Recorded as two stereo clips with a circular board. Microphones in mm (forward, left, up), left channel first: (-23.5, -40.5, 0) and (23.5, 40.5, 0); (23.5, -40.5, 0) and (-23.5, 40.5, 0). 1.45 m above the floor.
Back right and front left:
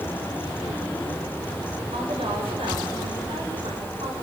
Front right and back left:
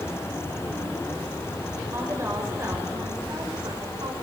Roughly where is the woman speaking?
Ahead left.